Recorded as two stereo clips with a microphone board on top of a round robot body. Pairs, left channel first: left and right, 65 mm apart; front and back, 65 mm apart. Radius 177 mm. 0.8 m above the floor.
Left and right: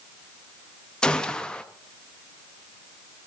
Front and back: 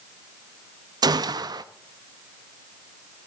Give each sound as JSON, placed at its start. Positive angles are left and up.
{"t": 1.0, "sound": "a gunshot", "azimuth_deg": 170, "distance_m": 0.8}